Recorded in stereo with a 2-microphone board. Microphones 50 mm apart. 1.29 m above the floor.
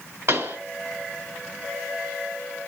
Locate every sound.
0.3 s a pop: 55° right (ahead or behind), 1.8 m